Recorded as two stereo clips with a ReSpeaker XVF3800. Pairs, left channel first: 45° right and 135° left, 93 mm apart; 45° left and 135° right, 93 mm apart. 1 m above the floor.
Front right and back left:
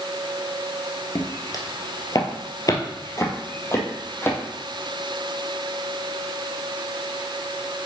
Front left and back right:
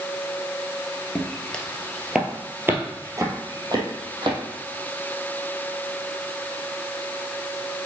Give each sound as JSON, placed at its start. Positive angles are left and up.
{"t": 1.1, "sound": "footsteps", "azimuth_deg": -15, "distance_m": 1.4}